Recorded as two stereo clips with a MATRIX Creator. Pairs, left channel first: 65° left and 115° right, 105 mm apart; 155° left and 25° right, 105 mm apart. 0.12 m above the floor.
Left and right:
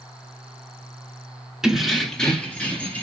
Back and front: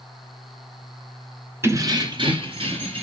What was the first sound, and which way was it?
Keys jangling, 35° right.